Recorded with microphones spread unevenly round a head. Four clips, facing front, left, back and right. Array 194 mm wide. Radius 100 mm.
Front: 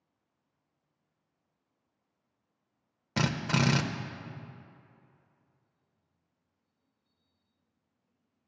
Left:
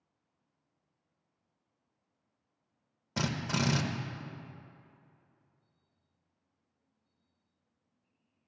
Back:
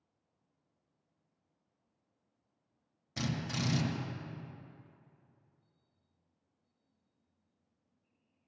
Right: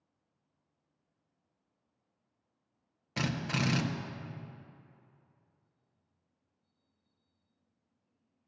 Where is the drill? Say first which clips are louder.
Left 1 dB, front 8 dB; 20° left, 0.7 m.